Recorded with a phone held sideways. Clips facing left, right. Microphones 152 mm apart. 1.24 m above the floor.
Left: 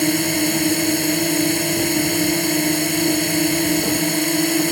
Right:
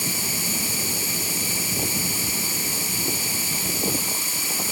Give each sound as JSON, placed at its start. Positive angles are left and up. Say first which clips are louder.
{"t": 0.0, "sound": "a drone", "louder": "left 14 dB", "side_deg": 70}